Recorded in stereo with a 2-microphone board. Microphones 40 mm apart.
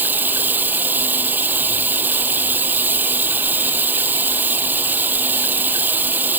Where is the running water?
50° right (ahead or behind).